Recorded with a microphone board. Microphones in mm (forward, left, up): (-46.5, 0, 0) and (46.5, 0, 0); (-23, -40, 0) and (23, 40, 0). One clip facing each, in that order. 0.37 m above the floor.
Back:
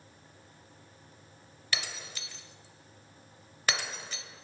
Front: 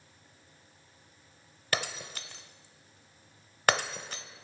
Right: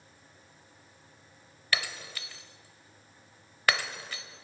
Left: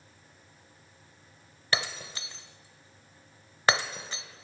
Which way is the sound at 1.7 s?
5° left.